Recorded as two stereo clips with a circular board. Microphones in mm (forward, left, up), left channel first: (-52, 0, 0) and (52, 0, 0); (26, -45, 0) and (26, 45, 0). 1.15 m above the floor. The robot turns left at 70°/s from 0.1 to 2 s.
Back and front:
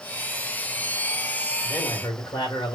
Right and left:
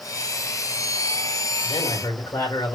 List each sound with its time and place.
1.6 s a man speaking: 105° right, 2 m; by 2.8 s 130° right, 2 m